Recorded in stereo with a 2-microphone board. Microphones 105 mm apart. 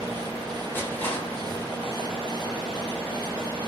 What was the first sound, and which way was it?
Crushing, 20° left (ahead or behind).